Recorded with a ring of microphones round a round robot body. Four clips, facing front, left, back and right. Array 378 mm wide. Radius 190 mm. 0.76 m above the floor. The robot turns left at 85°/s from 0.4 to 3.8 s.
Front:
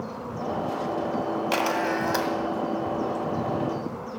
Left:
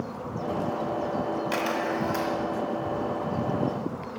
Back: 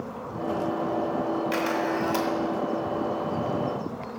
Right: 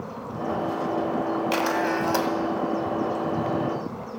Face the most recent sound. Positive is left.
turn(degrees=140)